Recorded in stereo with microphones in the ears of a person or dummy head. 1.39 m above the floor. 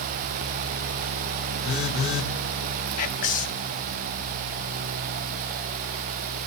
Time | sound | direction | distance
1.6 | a phone buzzing | 85° left | 2.0 m
3.0 | whispering | 40° left (ahead or behind) | 0.6 m